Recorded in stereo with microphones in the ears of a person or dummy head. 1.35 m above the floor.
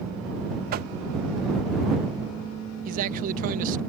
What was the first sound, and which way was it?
Knocking, 45° right (ahead or behind).